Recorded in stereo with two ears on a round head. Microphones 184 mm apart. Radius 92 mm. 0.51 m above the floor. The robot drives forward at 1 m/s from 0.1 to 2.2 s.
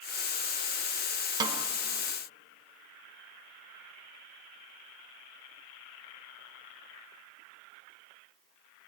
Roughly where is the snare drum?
Centre.